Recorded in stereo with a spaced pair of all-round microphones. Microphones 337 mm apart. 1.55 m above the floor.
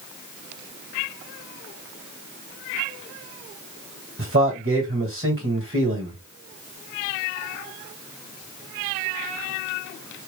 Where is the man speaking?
40° right (ahead or behind), 1.9 m.